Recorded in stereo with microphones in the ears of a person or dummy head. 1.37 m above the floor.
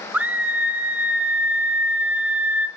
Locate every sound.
0.1 s a scream: 5° right (ahead or behind), 0.8 m